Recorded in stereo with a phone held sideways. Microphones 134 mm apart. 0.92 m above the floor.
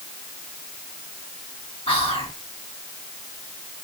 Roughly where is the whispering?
Left.